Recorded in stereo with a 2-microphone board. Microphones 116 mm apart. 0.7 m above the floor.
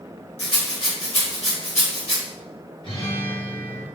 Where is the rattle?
65° left (ahead or behind), 1.3 m.